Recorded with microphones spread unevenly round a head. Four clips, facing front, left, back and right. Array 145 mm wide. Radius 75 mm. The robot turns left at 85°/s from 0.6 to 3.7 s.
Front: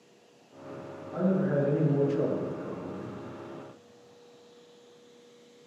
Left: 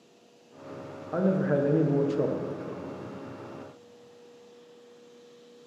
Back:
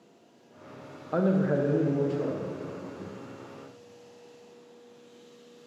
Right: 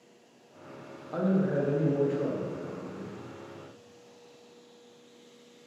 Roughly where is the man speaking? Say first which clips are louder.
Left 2 dB, back 2 dB; behind.